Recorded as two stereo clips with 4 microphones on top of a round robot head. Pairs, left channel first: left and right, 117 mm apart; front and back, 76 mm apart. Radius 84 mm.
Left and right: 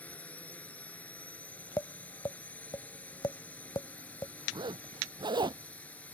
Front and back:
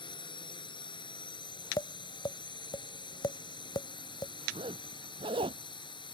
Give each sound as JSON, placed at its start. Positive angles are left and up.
{"t": 0.0, "sound": "a drone", "azimuth_deg": 10}
{"t": 1.8, "sound": "tapping", "azimuth_deg": 25}
{"t": 4.5, "sound": "a zipper", "azimuth_deg": -145}